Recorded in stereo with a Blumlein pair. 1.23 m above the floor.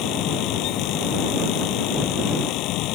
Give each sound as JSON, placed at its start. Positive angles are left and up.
{"t": 0.0, "sound": "a fan", "azimuth_deg": 40}